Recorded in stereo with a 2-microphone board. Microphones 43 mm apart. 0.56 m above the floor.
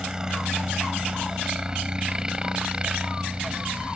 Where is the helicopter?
15° right (ahead or behind); by 4.0 s 25° right (ahead or behind).